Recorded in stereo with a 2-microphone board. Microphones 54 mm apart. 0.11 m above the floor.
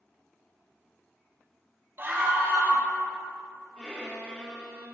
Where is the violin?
15° left (ahead or behind), 3 m.